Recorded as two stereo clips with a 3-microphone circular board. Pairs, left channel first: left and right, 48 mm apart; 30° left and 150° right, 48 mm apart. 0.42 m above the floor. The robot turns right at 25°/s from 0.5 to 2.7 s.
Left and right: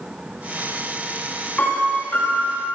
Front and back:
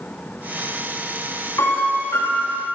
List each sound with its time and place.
1.6 s a piano: 30° left, 6 m; by 2.6 s 55° left, 6 m